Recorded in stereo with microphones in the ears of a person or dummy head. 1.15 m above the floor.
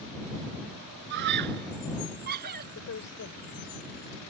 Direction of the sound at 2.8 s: 55° left (ahead or behind).